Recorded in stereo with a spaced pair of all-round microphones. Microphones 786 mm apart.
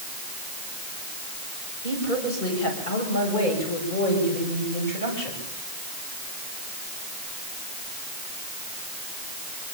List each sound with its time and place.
1.8 s a woman speaking: 85° left, 7.5 m